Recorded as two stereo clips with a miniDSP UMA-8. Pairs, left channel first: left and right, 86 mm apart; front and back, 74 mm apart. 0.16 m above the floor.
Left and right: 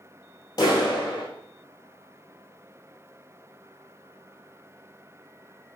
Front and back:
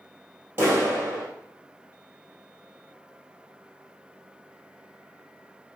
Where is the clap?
125° left, 3.5 m.